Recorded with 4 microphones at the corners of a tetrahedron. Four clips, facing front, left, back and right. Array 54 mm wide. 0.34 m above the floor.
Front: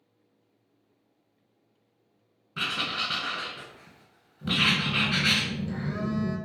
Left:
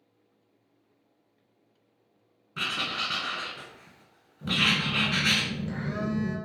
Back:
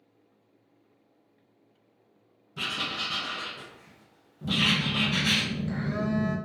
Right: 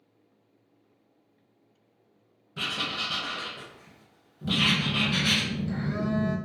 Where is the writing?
35° left, 1.4 m.